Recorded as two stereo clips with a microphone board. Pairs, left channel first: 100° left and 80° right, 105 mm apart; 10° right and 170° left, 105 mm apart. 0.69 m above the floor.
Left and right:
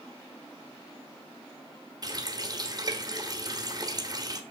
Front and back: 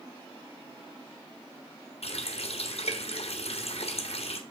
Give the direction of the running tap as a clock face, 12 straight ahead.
1 o'clock.